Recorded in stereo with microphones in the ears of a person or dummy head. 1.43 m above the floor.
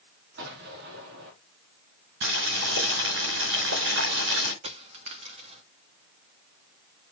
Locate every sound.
0.4 s an explosion: 60° right (ahead or behind), 2.5 m
2.2 s boiling: 65° right (ahead or behind), 4.5 m
4.6 s a dropped coin: 35° right (ahead or behind), 1.1 m